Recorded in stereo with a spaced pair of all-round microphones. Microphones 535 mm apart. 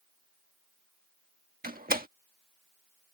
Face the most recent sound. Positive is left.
turn(degrees=-15)  # may be behind; listen again after turning